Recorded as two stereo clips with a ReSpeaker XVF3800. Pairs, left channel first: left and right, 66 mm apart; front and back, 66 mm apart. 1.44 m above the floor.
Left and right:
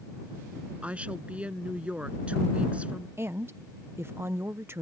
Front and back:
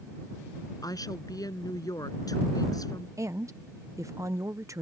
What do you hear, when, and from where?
0.8 s a woman speaking: 20° right
3.2 s a woman speaking: 140° right